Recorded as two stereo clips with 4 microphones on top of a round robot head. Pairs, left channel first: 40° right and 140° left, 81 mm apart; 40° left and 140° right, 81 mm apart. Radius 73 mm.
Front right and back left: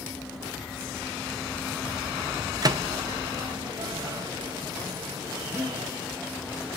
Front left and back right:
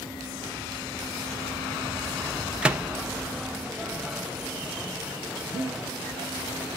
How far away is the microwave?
About 0.9 m.